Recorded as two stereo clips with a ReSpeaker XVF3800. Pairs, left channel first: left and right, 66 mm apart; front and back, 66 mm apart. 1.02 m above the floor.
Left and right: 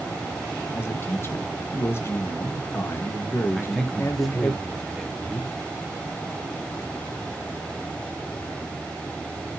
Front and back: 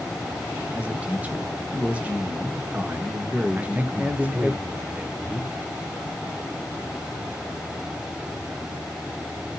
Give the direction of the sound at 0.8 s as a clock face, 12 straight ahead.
8 o'clock.